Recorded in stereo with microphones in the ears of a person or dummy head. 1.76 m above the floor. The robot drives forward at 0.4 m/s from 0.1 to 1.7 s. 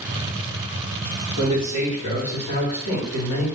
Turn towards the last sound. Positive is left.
turn(degrees=50)  # may be behind; listen again after turning